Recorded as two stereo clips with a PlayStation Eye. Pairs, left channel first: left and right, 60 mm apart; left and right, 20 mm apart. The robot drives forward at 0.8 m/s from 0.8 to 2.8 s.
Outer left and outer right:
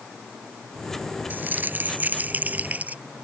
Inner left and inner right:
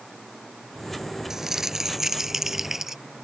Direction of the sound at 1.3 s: 30° right (ahead or behind).